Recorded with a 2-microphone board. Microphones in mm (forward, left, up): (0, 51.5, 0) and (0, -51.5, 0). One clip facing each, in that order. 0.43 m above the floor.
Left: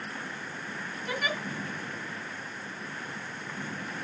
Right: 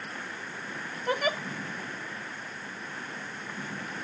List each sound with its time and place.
1.1 s a giggle: 55° right (ahead or behind), 1.6 m